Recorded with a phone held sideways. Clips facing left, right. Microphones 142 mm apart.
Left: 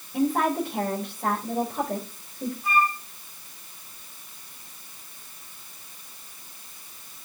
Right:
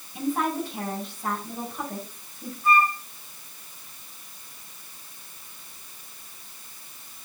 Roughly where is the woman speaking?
Left.